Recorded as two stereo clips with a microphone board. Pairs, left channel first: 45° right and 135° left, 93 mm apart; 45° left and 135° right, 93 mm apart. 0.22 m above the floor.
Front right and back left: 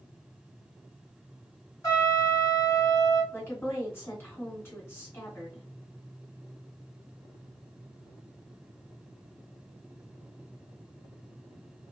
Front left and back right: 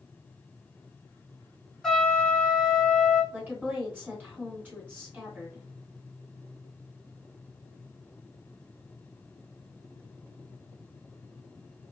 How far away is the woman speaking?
About 1.5 m.